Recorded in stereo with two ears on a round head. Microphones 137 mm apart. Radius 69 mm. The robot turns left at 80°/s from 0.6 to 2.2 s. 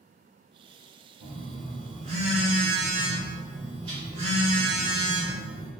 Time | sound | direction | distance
1.2 | a phone buzzing | 55° right | 1.5 m